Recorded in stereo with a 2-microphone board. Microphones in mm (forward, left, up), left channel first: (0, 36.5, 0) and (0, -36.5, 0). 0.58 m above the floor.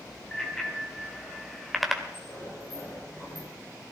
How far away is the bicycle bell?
About 3 m.